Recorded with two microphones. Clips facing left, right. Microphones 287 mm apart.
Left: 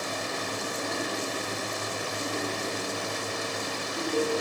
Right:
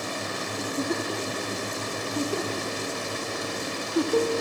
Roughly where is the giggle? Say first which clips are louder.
Right 9 dB; right.